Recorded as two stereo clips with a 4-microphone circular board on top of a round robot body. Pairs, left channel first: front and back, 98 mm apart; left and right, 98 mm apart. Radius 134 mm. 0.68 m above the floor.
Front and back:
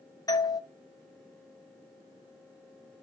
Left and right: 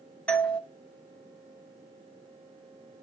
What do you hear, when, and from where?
0.3 s a doorbell: 15° left, 1.3 m